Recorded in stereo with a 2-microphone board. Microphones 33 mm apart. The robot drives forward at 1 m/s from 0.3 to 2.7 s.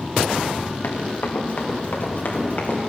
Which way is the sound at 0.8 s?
85° left.